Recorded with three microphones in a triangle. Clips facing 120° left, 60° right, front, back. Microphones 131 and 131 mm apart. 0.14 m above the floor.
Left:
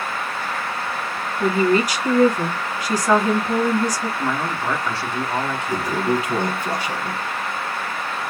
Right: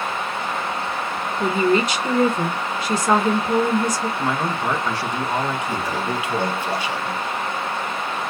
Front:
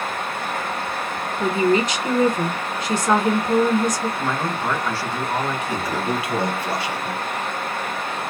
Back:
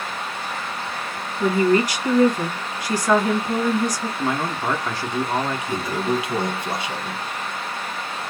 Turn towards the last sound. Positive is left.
turn(degrees=125)